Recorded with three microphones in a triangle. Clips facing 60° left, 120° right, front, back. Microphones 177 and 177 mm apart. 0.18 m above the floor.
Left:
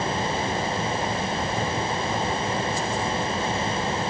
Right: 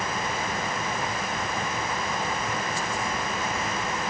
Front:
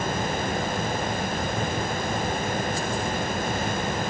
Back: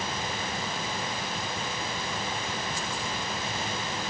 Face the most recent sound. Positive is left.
No sound to turn to.